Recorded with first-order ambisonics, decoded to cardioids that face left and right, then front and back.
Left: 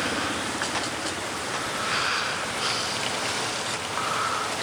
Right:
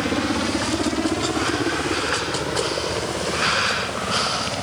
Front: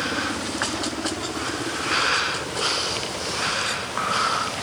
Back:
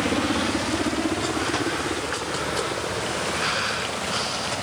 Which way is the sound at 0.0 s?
125° right.